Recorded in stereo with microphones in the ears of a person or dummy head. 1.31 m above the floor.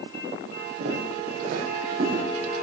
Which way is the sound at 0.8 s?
60° right (ahead or behind).